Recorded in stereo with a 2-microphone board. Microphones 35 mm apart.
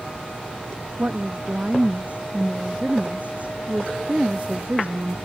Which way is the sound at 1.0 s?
40° right (ahead or behind).